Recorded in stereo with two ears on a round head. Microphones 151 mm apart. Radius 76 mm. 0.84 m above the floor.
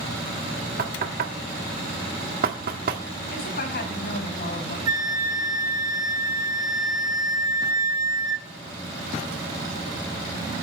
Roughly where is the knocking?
Right.